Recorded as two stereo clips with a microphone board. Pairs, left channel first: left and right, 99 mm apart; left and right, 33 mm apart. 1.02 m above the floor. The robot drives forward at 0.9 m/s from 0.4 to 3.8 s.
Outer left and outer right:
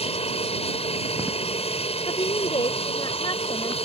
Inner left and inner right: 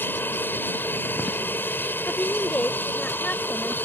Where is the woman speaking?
60° left (ahead or behind); by 3.8 s 40° left (ahead or behind).